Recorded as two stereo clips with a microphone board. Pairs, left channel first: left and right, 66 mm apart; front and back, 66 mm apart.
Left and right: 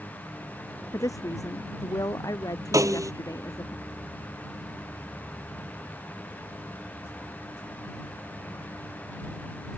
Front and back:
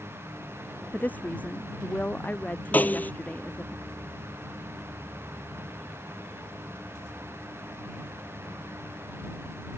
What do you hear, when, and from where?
0.9 s a woman speaking: 65° left; by 3.7 s 70° left
2.7 s a snare drum: 65° right